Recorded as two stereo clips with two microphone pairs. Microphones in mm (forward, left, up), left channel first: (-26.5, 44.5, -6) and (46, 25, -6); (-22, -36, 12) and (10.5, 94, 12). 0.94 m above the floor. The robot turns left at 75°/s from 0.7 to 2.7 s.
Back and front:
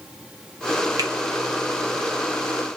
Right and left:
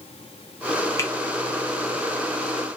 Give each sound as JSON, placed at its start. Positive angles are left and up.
{"t": 1.0, "sound": "a finger snap", "azimuth_deg": -35, "distance_m": 0.6}